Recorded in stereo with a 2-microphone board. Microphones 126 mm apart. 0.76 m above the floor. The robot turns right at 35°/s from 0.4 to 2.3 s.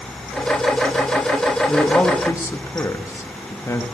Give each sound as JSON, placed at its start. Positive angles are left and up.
{"t": 1.7, "sound": "a man speaking", "side_deg": 10, "distance_m": 0.9}